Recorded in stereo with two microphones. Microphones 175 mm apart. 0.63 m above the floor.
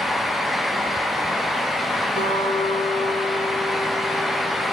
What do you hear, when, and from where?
2.2 s a guitar: 65° left (ahead or behind), 5 m